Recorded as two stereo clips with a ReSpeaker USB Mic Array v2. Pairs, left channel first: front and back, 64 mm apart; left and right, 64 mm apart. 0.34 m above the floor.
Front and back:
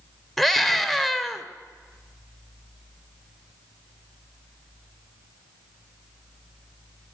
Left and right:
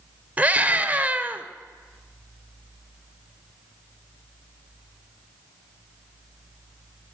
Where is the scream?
85° right, 0.8 m.